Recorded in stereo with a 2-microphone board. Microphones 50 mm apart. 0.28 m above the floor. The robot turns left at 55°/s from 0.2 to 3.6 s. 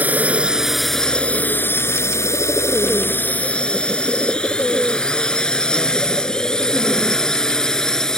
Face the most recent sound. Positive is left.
turn(degrees=10)  # may be behind; listen again after turning